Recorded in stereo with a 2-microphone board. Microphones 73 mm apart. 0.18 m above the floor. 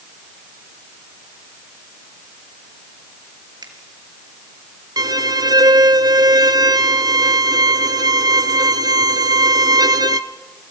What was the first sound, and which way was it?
A finger snap, 65° right (ahead or behind).